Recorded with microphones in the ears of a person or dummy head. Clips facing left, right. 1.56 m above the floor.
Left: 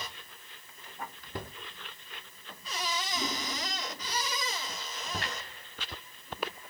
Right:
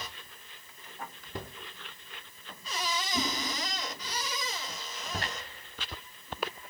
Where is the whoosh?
25° right (ahead or behind), 8.5 m.